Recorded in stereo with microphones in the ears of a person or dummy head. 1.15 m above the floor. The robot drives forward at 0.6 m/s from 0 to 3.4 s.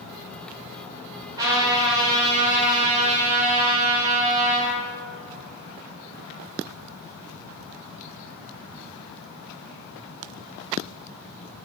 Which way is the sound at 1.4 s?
20° right (ahead or behind).